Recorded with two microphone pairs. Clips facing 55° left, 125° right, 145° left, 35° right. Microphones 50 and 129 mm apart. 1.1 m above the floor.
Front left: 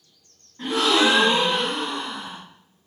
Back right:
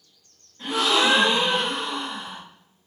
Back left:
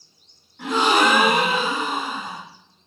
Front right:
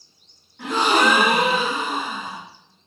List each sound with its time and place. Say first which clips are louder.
0.6 s a gasp: front left 2 dB, even; 60° left, 1.6 m